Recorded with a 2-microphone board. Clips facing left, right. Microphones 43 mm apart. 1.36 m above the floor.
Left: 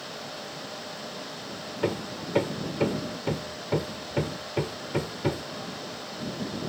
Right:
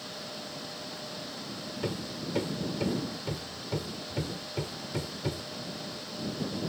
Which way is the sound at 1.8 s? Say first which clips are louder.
Left 6 dB; 35° left (ahead or behind).